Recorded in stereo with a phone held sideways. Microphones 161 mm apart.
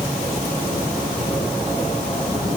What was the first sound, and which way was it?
Only background noise.